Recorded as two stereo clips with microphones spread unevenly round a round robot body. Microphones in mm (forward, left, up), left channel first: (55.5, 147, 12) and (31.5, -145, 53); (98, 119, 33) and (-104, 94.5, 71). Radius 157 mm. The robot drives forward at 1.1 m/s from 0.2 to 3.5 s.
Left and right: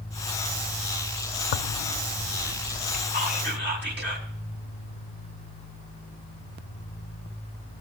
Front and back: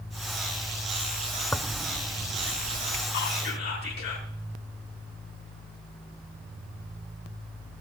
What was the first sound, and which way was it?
Tearing paper, 90° left.